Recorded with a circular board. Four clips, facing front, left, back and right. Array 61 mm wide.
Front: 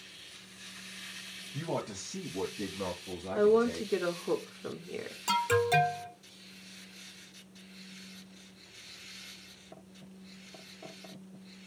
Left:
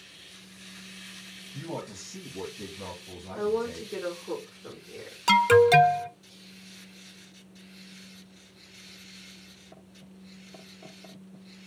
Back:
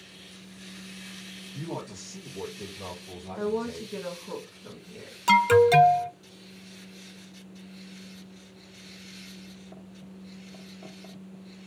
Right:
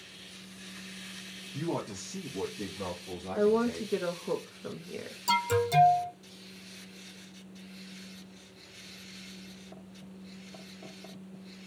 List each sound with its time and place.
1.5 s a man speaking: 20° right, 1.7 m
3.4 s a woman speaking: 35° right, 1.4 m
5.3 s an alarm: 115° left, 0.6 m